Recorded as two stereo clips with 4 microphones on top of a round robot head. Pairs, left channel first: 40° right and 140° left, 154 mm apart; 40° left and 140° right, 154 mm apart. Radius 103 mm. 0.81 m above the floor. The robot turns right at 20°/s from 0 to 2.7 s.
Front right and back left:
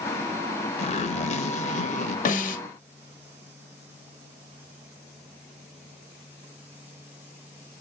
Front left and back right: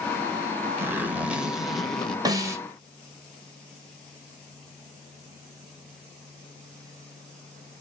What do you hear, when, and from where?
0.8 s a zipper: 65° right, 1.2 m; by 2.1 s 40° right, 1.2 m
2.2 s a snare drum: 75° right, 1.4 m; by 2.6 s 65° right, 1.4 m